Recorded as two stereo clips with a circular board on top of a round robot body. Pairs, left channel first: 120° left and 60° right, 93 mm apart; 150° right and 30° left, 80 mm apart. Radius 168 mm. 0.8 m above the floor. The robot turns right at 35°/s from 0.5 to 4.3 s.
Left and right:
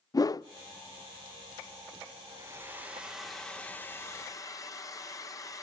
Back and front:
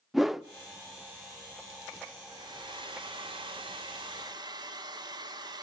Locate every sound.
0.1 s a whoosh: 115° left, 0.7 m
2.3 s a hair dryer: 5° right, 1.7 m; by 5.6 s 65° left, 1.7 m